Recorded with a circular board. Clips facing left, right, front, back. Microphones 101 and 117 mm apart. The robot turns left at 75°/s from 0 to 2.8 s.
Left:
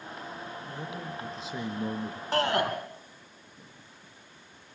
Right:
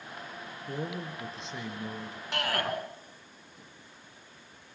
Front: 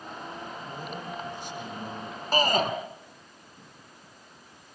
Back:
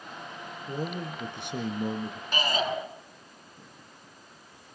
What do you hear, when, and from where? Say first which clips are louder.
0.7 s a man speaking: right 5 dB, back 7 dB; 130° right, 2.5 m; by 2.2 s 115° left, 2.5 m
2.3 s a shout: left 5 dB, front 5 dB; 40° left, 2.5 m; by 2.7 s 15° left, 2.5 m